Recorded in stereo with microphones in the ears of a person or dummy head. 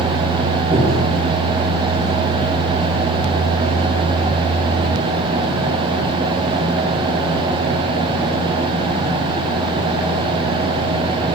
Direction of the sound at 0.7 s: 15° right (ahead or behind).